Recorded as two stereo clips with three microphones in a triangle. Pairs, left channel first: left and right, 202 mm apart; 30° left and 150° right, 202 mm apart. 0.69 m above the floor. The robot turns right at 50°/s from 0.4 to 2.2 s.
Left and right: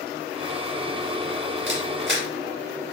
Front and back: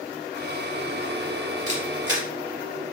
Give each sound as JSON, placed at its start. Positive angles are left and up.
{"t": 1.7, "sound": "a camera shutter", "azimuth_deg": -100, "distance_m": 2.5}